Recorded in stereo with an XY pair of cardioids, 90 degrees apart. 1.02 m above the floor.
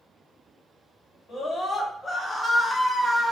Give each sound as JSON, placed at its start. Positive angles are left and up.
{"t": 1.3, "sound": "a scream", "azimuth_deg": 55, "distance_m": 1.6}